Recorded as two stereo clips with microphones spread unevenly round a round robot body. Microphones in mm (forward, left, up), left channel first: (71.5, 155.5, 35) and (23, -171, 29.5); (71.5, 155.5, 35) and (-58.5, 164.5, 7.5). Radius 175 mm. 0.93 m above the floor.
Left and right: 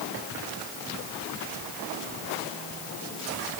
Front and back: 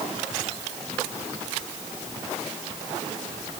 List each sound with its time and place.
Only background noise.